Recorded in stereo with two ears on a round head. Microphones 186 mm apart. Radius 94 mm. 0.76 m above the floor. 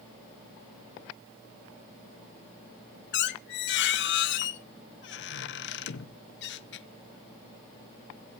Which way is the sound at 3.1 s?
55° left (ahead or behind).